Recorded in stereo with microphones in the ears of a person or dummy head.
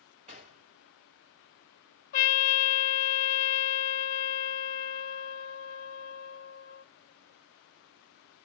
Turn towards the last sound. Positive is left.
turn(degrees=40)  # may be behind; listen again after turning